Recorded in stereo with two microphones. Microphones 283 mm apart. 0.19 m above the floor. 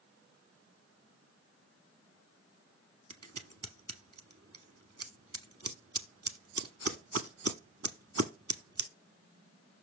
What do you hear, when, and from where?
3.1 s scissors: 55° right (ahead or behind), 0.7 m